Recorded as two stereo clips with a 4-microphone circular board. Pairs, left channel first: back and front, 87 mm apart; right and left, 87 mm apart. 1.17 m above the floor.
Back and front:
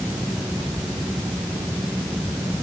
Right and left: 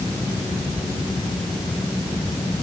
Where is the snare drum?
I don't hear a snare drum.